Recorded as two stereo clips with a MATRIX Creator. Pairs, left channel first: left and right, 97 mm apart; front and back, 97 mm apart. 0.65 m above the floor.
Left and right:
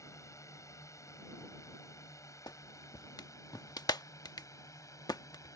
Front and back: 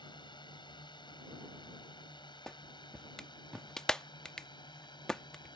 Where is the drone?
35° left.